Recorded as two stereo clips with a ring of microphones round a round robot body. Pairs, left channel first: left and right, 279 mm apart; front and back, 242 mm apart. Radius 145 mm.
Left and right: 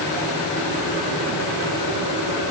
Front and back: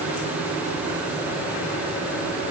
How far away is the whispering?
No whispering in this recording.